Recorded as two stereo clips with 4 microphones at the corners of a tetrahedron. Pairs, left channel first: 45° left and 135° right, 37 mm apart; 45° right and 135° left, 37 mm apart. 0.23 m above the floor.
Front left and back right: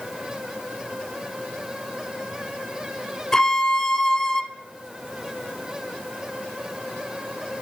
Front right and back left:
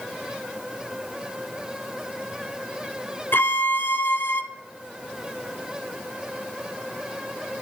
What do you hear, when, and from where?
3.3 s a violin: 30° right, 0.6 m